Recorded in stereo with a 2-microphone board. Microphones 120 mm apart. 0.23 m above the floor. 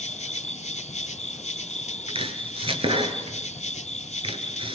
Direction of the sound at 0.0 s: 70° left (ahead or behind).